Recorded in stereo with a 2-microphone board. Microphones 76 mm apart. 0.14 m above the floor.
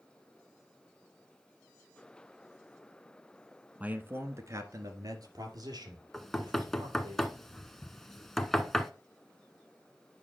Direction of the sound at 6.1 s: 5° left (ahead or behind).